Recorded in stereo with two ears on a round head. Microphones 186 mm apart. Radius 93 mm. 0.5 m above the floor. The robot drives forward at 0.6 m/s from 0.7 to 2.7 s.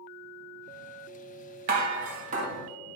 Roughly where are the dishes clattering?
Right.